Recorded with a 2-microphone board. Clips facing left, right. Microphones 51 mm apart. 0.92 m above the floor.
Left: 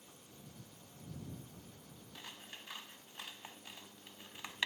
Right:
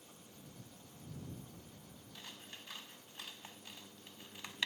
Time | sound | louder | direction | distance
2.1 | scissors | left 1 dB | 15° left (ahead or behind) | ?